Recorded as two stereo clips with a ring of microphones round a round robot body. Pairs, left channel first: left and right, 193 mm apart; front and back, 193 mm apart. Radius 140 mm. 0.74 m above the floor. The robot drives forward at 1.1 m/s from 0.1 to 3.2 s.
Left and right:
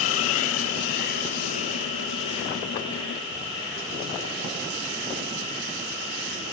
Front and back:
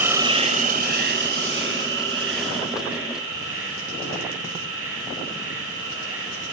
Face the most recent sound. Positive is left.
turn(degrees=170)